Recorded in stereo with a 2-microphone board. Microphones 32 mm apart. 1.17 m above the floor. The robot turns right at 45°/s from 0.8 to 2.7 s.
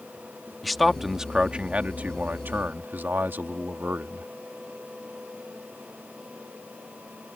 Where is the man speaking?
Straight behind; by 4.3 s 95° right.